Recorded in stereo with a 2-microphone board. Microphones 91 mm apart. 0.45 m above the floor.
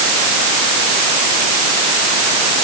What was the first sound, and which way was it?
Only background noise.